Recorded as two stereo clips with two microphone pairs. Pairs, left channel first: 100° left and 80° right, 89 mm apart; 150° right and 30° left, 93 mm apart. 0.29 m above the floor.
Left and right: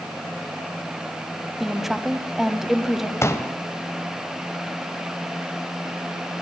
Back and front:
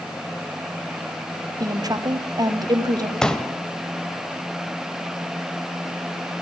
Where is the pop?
130° left, 1.5 m.